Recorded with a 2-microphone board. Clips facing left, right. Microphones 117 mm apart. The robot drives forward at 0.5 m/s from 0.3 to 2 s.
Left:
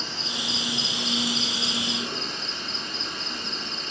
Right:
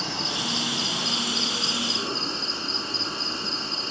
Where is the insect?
70° right (ahead or behind), 0.8 m; by 3.9 s 40° right (ahead or behind), 1.2 m.